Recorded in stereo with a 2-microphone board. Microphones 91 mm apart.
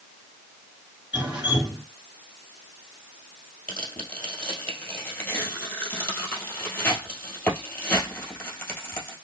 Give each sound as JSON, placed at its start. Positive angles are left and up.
{"t": 1.1, "sound": "dripping", "side_deg": -15, "distance_m": 2.0}
{"t": 3.7, "sound": "tearing paper", "side_deg": 15, "distance_m": 2.0}